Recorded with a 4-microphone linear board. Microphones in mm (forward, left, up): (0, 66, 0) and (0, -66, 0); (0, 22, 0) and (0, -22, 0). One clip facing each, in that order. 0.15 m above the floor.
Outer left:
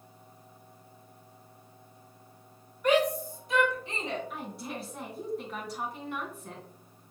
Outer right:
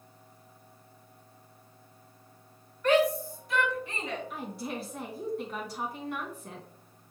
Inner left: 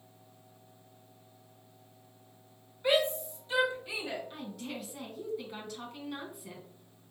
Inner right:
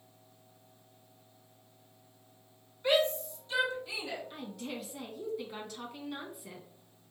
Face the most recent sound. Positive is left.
turn(degrees=0)  # may be behind; listen again after turning